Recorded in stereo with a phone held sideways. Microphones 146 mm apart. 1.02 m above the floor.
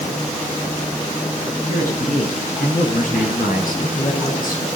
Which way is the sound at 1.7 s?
65° left (ahead or behind).